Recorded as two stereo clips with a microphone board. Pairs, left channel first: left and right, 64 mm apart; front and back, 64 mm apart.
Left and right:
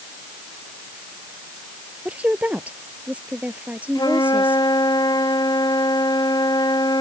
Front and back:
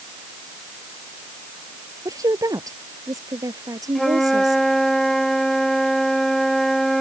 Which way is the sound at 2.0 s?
155° right.